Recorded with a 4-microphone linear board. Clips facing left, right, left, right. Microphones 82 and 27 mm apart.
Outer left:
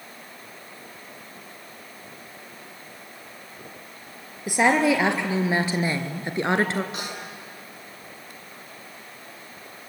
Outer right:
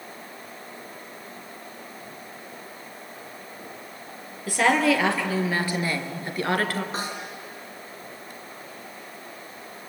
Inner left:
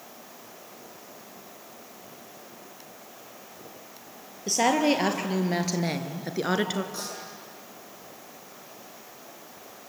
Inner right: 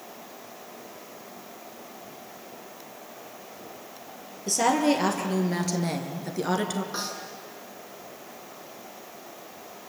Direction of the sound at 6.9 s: 35° right (ahead or behind).